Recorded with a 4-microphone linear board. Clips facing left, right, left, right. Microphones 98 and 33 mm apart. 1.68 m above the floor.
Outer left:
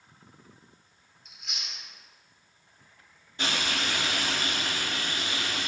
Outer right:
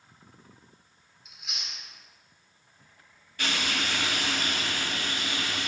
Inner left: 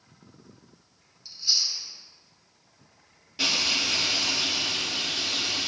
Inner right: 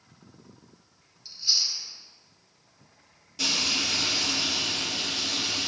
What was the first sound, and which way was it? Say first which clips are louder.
Chewing: even, even; 5° right (ahead or behind).